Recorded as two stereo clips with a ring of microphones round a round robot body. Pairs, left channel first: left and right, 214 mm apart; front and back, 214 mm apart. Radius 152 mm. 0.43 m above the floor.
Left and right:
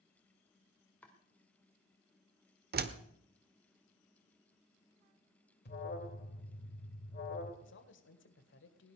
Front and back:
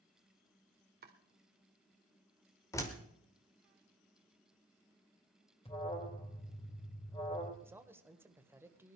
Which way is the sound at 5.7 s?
60° left.